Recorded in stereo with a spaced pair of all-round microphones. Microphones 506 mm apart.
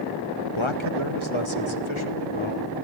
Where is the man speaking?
65° left (ahead or behind), 1.7 m; by 2.9 s 70° left (ahead or behind), 5 m.